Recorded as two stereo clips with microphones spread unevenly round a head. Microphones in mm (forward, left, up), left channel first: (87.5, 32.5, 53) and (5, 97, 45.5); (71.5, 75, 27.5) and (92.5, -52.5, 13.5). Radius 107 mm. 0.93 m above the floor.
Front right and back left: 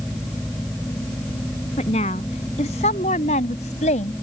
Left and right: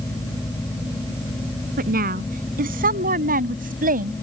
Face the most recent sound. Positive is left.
turn(degrees=-75)